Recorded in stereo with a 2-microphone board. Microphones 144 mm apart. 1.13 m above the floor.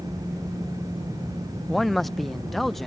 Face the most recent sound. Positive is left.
turn(degrees=0)  # may be behind; listen again after turning